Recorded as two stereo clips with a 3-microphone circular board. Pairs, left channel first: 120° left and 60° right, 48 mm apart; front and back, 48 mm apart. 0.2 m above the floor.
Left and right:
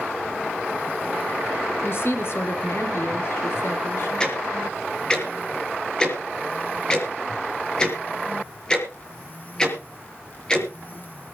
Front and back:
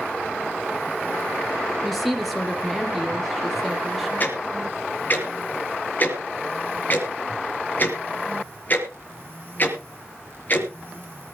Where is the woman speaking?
90° left, 3.5 m.